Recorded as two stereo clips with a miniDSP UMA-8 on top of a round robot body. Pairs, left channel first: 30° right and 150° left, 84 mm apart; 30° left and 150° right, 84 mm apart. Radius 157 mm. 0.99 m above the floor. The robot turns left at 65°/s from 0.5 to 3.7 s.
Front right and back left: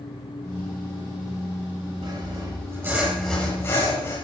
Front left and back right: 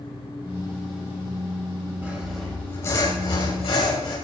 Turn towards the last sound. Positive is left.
turn(degrees=25)